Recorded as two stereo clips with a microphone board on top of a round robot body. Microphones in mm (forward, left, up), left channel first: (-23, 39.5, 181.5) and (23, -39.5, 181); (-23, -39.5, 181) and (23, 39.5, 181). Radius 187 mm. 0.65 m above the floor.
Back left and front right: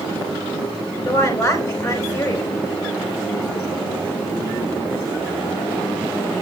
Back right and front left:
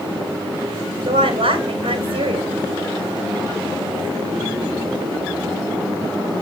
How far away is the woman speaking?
About 4.5 m.